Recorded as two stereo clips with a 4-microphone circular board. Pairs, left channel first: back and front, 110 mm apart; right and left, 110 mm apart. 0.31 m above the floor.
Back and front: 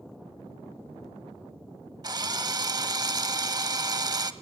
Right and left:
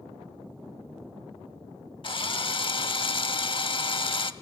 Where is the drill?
50° right, 0.6 m.